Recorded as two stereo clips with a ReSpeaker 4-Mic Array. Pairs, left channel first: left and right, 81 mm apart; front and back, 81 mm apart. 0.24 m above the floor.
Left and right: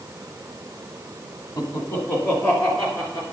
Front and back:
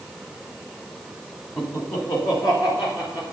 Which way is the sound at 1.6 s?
50° left.